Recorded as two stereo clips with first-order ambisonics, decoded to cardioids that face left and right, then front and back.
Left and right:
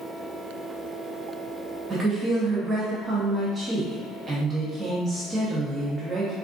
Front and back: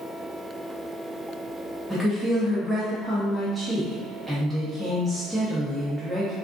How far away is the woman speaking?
About 0.5 m.